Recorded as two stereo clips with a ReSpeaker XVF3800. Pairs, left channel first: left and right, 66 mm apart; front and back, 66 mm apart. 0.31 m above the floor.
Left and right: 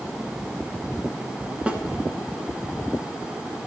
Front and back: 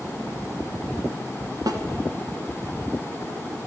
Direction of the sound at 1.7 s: 160° right.